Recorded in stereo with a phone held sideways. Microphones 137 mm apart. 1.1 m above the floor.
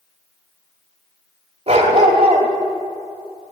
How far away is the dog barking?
About 1.3 m.